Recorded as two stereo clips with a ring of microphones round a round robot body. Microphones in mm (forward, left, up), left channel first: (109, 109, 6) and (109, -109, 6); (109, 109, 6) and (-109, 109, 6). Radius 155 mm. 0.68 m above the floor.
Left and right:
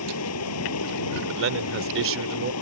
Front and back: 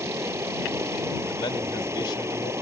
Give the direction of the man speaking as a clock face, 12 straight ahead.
3 o'clock.